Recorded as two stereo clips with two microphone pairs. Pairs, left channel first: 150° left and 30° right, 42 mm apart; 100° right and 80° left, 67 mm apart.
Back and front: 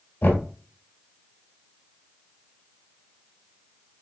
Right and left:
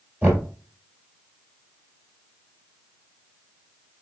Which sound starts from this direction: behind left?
Knocking, at 0.2 s.